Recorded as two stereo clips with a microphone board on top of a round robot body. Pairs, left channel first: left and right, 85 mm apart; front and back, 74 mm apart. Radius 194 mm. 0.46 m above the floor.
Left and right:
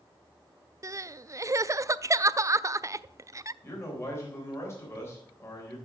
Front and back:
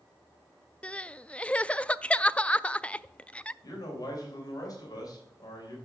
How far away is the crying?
About 0.5 m.